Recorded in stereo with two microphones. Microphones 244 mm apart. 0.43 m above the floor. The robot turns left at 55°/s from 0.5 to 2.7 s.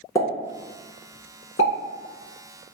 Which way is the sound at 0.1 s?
15° left (ahead or behind).